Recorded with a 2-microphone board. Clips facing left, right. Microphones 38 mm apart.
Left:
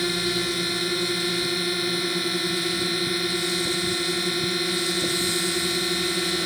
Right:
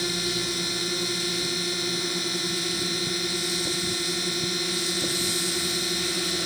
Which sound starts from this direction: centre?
A drone, at 0.0 s.